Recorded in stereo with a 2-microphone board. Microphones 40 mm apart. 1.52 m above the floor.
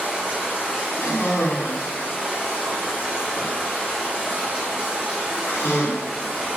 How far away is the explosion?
No explosion in this recording.